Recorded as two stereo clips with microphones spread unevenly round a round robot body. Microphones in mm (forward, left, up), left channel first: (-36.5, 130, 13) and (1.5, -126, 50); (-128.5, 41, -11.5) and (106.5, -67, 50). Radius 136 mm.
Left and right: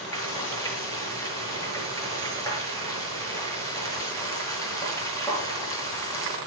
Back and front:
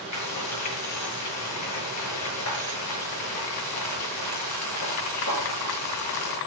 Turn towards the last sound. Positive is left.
turn(degrees=175)